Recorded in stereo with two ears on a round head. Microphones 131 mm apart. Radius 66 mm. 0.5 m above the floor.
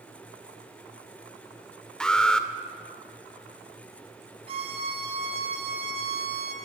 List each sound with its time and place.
2.0 s an alarm: 5° left (ahead or behind), 1.6 m
4.5 s a violin: 40° right (ahead or behind), 4.5 m